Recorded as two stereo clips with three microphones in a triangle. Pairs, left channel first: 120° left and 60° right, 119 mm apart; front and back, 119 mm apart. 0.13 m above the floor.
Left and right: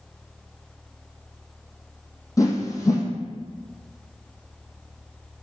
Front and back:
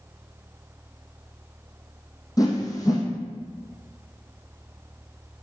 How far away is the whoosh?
About 1.2 m.